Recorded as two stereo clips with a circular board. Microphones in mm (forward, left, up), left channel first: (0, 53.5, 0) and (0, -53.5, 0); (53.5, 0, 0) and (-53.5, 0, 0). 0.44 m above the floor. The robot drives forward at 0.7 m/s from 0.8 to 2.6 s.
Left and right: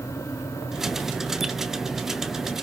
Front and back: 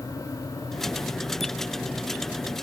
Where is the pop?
I don't hear a pop.